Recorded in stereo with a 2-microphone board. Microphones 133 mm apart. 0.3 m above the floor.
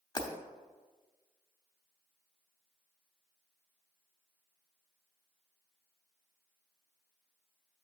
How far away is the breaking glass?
About 0.9 m.